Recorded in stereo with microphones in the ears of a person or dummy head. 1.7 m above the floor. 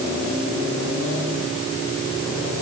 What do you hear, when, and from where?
Only background noise.